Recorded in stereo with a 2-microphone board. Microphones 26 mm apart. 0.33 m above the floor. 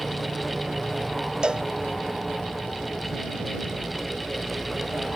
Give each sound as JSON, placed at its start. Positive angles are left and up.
{"t": 1.4, "sound": "a cowbell", "side_deg": -35}